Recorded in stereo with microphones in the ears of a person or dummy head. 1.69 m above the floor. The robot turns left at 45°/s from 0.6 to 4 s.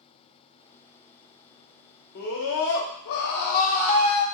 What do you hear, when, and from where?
2.1 s a scream: 120° left, 0.7 m; by 4.2 s 40° left, 0.7 m